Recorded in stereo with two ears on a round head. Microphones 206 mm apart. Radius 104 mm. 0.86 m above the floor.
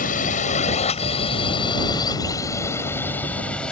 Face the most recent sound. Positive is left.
turn(degrees=5)  # may be behind; listen again after turning